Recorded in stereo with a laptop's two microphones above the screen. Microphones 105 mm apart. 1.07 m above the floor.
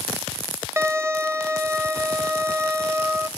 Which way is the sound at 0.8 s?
25° right (ahead or behind).